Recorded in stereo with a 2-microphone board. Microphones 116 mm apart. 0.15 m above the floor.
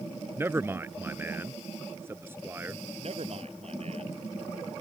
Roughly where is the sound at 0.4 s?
Centre.